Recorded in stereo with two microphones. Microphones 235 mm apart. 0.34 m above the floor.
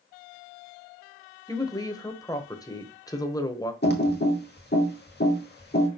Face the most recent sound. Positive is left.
turn(degrees=45)  # may be behind; listen again after turning